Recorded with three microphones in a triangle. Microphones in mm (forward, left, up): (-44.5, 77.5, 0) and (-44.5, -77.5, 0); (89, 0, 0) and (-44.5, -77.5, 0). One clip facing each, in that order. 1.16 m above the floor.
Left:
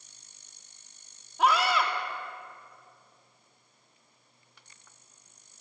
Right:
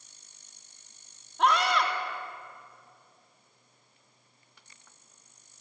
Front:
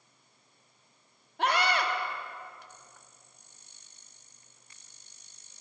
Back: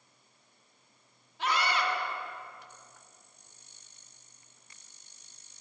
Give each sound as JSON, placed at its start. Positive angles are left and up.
{"t": 1.4, "sound": "a scream", "azimuth_deg": 5, "distance_m": 3.0}